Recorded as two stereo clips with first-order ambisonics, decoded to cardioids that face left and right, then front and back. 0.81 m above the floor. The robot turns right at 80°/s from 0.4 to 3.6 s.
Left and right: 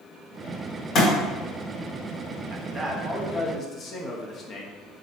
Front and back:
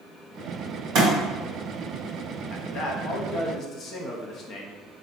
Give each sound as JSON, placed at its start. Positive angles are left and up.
{"t": 0.9, "sound": "a thud", "azimuth_deg": 145, "distance_m": 1.8}
{"t": 2.5, "sound": "a man speaking", "azimuth_deg": -50, "distance_m": 0.7}